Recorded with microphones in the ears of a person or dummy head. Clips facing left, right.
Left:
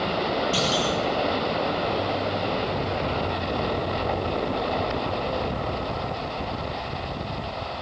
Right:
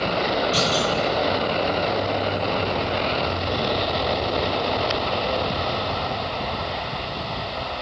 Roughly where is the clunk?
Centre.